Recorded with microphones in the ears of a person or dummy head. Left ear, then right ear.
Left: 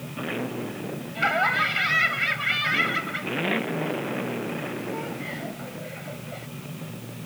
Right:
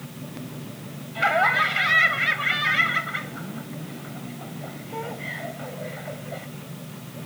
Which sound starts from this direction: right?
Laughter, at 1.1 s.